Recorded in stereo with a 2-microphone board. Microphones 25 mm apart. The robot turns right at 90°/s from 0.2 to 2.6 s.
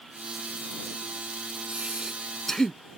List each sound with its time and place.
1.7 s breathing: 60° right; by 2.8 s 20° left